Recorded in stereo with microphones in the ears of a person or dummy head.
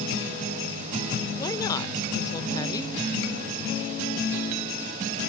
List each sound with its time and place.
1.4 s a woman speaking: 15° left (ahead or behind), 0.8 m